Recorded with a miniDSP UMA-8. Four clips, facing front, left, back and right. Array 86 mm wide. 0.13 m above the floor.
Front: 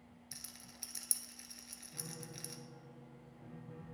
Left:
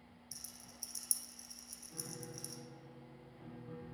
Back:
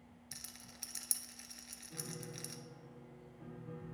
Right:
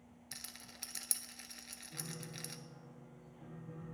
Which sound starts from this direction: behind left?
A piano, at 1.9 s.